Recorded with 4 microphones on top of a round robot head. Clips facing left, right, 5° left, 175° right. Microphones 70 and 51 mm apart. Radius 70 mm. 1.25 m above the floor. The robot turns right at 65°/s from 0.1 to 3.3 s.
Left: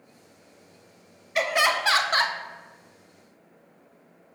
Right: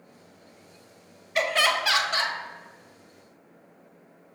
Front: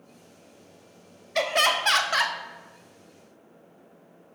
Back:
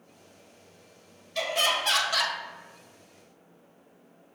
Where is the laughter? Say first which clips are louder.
Left 1 dB, front 4 dB; straight ahead, 0.5 m; by 2.4 s 65° left, 0.5 m.